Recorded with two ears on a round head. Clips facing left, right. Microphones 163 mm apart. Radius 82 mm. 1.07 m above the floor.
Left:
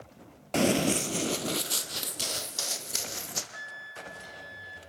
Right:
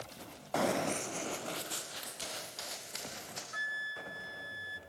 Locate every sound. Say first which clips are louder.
0.5 s running footsteps: left 7 dB; 35° left (ahead or behind), 1.2 m; by 3.4 s 60° left (ahead or behind), 3 m
3.5 s a flute: left 1 dB; 65° right (ahead or behind), 1.1 m